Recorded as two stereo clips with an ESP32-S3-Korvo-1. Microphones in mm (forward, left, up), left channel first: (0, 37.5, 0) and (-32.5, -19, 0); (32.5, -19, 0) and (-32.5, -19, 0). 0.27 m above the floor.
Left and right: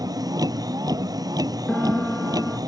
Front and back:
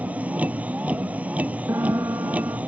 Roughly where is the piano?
Behind left.